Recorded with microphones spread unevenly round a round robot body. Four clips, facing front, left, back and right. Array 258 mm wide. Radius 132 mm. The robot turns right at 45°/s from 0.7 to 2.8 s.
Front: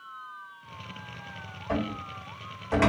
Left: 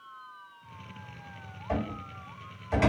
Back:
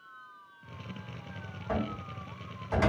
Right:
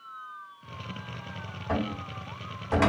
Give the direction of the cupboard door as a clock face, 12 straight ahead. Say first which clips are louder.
Right 2 dB, front 3 dB; 3 o'clock.